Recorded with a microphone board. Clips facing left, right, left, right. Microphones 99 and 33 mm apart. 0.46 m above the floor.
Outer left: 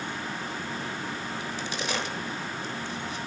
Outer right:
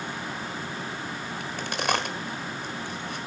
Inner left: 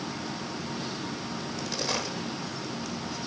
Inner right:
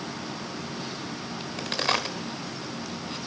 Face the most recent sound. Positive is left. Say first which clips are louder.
# outer right 3 dB, inner right 7 dB
turn(degrees=-60)  # may be behind; listen again after turning